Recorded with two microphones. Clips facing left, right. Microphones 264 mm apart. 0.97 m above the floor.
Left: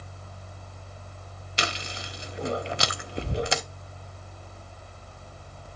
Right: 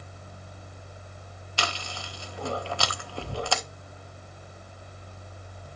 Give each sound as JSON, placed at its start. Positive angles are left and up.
{"t": 1.6, "sound": "chewing", "side_deg": 20, "distance_m": 0.6}